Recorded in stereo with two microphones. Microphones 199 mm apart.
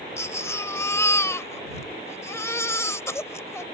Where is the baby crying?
15° left (ahead or behind).